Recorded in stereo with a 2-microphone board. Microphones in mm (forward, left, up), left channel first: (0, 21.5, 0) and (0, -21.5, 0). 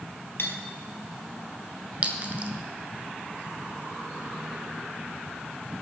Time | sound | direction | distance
0.4 | cutlery clinking | 65° left (ahead or behind) | 1.3 m
2.0 | a clink | 35° right (ahead or behind) | 1.1 m